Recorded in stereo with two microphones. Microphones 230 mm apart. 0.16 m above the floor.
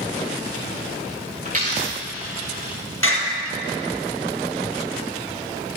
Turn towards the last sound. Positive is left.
turn(degrees=65)  # may be behind; listen again after turning